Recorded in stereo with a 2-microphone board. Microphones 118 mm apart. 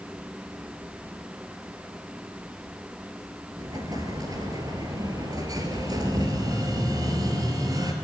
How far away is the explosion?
About 2.5 m.